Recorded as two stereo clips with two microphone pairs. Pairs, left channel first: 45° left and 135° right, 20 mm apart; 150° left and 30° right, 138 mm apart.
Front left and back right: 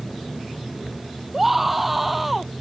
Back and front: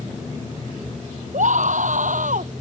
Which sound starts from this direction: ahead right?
A scream, at 1.3 s.